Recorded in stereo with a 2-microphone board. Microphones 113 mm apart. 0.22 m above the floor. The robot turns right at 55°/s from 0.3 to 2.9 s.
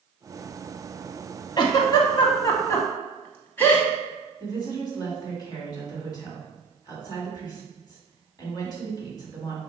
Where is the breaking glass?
I don't hear breaking glass.